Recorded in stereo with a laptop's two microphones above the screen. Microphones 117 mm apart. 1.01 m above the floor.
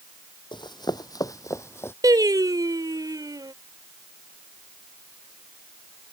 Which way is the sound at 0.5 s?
40° left (ahead or behind).